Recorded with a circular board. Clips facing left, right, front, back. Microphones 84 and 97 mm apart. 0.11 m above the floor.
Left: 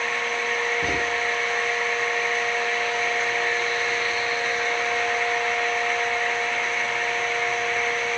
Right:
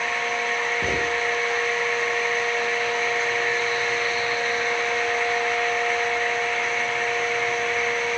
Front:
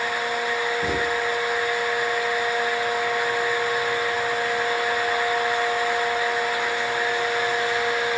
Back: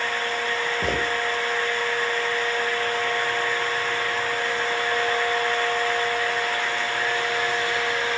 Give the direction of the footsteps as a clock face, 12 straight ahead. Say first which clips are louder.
Right 1 dB, front 1 dB; 5 o'clock.